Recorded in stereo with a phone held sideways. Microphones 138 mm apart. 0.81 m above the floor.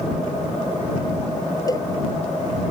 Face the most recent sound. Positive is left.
turn(degrees=25)  # may be behind; listen again after turning